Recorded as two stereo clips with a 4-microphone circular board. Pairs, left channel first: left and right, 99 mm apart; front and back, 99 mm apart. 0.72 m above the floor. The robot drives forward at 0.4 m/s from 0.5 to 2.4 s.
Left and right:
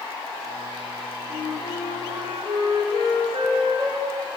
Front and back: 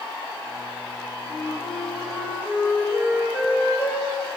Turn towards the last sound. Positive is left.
turn(degrees=-110)